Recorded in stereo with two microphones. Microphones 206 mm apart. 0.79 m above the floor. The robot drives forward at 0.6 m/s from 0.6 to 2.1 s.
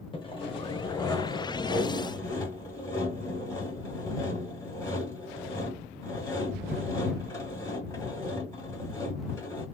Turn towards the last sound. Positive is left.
turn(degrees=15)  # may be behind; listen again after turning